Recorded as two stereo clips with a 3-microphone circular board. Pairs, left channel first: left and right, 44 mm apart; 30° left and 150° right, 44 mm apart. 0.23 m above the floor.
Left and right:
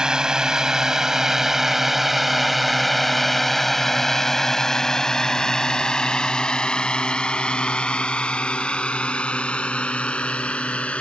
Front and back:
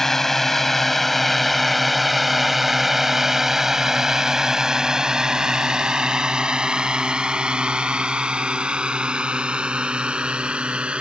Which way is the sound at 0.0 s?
45° right.